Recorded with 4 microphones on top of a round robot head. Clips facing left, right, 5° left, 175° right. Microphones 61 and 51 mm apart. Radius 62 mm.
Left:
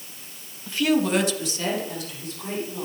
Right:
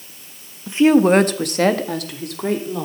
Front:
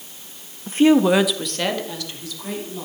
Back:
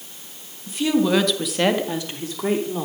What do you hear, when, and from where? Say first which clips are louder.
0.7 s a woman speaking: right 9 dB, front 5 dB; 25° right, 1.4 m; by 2.9 s 120° right, 3 m